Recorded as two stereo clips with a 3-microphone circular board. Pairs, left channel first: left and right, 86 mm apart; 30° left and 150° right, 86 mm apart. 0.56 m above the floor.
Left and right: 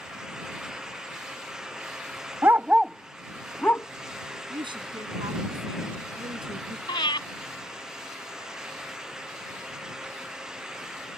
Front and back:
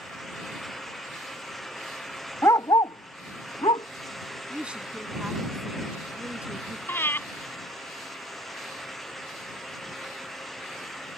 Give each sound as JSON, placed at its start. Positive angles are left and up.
{"t": 2.4, "sound": "a dog barking", "azimuth_deg": -30}
{"t": 4.5, "sound": "a woman speaking", "azimuth_deg": -70}
{"t": 6.9, "sound": "breathing", "azimuth_deg": 90}